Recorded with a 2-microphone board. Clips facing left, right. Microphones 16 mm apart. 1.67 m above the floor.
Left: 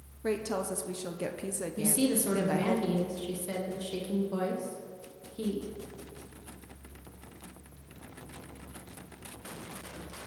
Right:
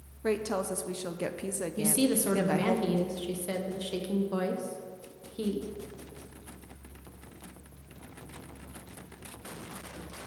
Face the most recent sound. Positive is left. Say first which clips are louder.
# right 1 dB
turn(degrees=-25)  # may be behind; listen again after turning